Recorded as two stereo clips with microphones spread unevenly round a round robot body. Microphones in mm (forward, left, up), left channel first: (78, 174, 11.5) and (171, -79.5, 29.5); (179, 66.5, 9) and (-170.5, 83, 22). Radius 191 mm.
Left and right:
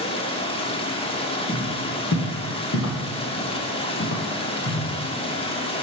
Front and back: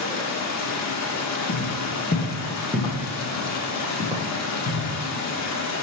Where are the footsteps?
45° left, 1.5 m; by 4.9 s 105° left, 2.5 m.